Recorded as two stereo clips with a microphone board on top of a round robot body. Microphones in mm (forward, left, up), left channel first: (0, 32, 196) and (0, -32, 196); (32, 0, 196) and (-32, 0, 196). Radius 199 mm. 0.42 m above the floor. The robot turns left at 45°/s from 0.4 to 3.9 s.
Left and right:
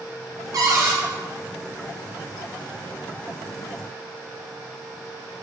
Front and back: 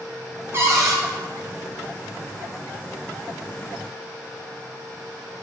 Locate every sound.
0.5 s a cupboard door: 125° right, 0.5 m; by 1.0 s 145° right, 0.5 m